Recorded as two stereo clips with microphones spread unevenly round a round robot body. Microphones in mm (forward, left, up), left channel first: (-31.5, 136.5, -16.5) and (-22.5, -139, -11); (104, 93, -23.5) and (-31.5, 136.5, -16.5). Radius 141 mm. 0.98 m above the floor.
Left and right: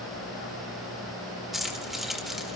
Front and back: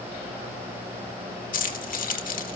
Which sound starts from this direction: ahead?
Keys jangling, at 1.5 s.